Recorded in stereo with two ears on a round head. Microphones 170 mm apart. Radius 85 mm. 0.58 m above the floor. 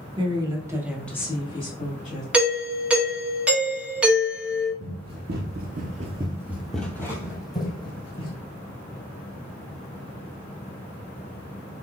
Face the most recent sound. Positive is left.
turn(degrees=30)  # may be behind; listen again after turning